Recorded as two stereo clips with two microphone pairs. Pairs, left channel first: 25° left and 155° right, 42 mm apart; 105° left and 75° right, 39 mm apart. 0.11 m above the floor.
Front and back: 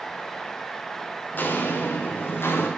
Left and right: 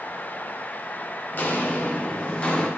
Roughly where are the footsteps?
Ahead left.